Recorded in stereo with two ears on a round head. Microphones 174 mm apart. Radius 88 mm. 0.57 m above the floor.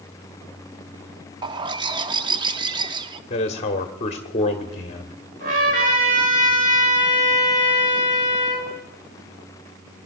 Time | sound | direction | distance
1.4 | a bird | 25° right (ahead or behind) | 0.6 m
3.3 | a man speaking | 35° left (ahead or behind) | 1.1 m
5.4 | a trumpet | 45° right (ahead or behind) | 8 m